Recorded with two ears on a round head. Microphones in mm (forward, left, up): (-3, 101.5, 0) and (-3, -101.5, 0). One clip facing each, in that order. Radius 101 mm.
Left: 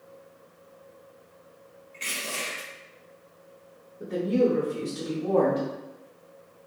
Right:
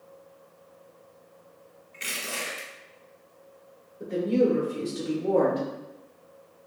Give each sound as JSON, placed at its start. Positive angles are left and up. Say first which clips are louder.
{"t": 1.9, "sound": "crushing", "louder": "even", "side_deg": -15, "distance_m": 1.0}
{"t": 4.0, "sound": "a woman speaking", "louder": "even", "side_deg": -5, "distance_m": 1.2}